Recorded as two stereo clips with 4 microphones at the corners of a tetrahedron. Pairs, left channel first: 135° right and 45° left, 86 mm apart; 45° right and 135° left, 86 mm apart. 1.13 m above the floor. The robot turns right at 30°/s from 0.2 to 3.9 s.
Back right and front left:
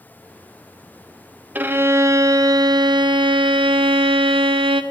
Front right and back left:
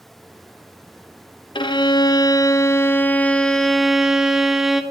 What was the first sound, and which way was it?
A violin, 25° right.